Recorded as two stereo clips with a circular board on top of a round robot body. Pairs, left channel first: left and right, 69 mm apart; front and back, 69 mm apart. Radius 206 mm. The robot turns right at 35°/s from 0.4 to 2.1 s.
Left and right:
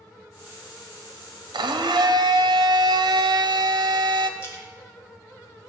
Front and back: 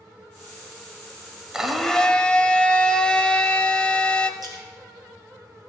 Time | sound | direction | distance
1.5 | a blender | 100° right | 1.0 m
4.4 | a splash | 145° left | 4 m